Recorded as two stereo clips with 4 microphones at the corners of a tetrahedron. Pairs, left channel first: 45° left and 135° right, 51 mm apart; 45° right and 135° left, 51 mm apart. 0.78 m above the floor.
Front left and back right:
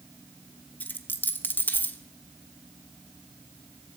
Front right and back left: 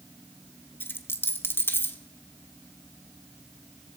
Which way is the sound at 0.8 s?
5° right.